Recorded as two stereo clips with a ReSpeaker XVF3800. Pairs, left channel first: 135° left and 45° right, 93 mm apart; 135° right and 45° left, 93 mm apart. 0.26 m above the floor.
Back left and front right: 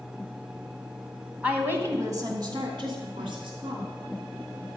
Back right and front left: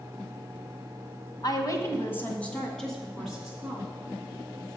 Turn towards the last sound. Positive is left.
turn(degrees=-65)